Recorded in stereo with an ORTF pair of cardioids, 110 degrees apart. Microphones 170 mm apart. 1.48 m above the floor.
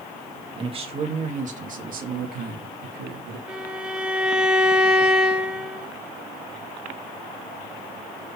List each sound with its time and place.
0.5 s a man speaking: 30° right, 1.9 m; by 3.4 s 75° right, 3 m
3.5 s a violin: 5° right, 1.2 m